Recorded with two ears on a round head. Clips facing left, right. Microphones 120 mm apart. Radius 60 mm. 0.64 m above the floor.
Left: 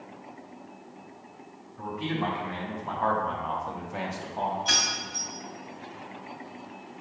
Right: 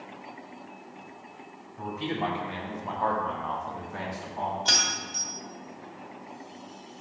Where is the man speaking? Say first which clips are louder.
Even; 45° right (ahead or behind), 2 m; by 4.5 s 40° left (ahead or behind), 1.5 m.